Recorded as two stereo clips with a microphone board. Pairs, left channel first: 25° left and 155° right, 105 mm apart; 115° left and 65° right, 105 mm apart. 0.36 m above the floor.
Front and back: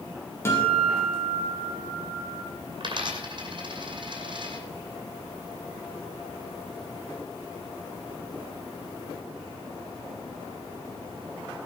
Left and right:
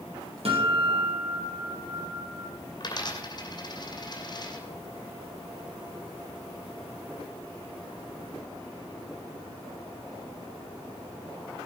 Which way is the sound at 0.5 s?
45° right.